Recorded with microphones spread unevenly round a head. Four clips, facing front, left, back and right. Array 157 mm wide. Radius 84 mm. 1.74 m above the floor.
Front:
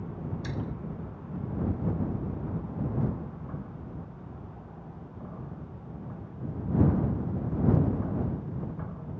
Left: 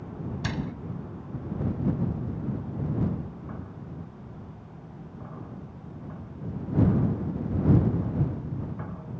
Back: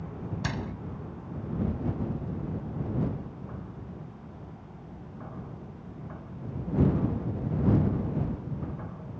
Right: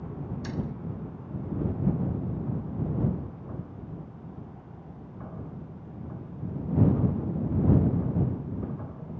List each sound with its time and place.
0.4 s a door slam: 145° left